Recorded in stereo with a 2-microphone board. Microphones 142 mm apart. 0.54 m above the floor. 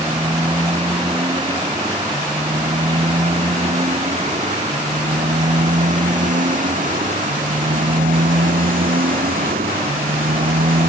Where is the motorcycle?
35° right (ahead or behind); by 10.9 s 85° right.